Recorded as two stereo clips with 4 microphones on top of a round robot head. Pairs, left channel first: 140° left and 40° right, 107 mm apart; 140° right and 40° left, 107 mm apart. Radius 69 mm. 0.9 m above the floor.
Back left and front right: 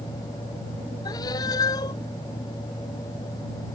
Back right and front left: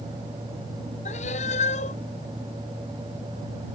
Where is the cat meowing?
165° right.